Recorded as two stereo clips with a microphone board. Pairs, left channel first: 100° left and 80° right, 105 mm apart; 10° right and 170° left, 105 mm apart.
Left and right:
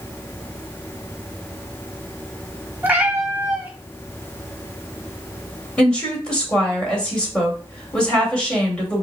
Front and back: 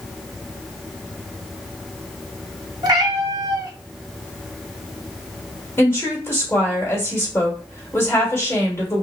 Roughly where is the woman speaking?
Ahead left.